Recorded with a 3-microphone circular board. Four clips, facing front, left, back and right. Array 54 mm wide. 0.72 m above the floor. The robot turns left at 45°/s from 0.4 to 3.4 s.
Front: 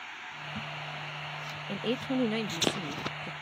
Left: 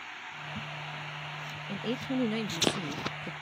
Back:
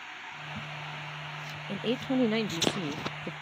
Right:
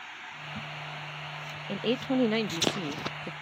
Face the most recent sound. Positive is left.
turn(degrees=-160)